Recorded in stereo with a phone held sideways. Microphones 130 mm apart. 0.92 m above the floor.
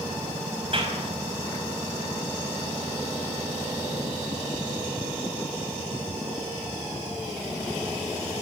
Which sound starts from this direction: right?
A clap, at 0.7 s.